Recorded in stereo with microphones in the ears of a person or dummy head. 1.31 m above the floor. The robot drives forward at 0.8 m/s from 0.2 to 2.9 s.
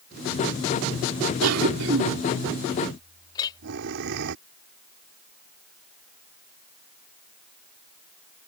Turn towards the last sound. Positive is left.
turn(degrees=20)  # may be behind; listen again after turning